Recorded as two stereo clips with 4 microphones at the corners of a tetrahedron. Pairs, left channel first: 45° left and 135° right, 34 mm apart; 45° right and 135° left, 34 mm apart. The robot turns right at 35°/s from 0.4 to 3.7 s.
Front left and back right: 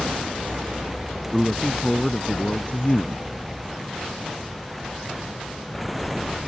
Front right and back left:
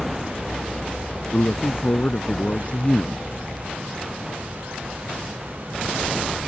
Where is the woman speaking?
40° right; by 3.3 s 25° left.